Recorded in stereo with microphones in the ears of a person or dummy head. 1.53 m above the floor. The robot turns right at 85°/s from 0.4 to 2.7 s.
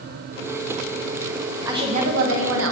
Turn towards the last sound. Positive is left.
turn(degrees=-75)